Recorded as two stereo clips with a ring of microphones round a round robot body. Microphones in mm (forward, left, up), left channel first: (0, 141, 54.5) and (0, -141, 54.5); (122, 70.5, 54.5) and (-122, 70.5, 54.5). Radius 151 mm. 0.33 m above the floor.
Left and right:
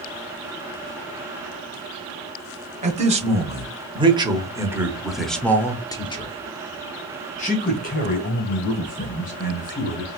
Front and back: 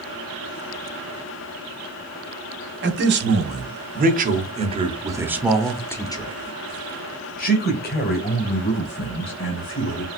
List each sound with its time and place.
2.8 s a man speaking: 150° right, 1.7 m; by 10.1 s 35° left, 2.5 m